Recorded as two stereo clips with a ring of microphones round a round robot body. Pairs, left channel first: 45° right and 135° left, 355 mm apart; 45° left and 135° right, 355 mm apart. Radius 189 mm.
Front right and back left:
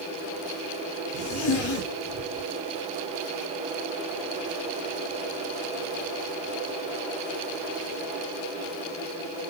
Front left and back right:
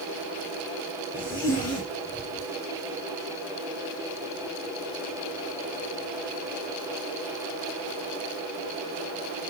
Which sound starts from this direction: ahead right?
A zipper, at 1.1 s.